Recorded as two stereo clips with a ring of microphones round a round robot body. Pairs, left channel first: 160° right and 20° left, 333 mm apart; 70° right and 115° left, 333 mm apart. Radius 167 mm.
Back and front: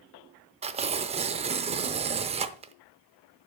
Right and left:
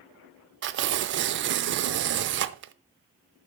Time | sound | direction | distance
0.6 | tearing paper | 85° left | 0.5 m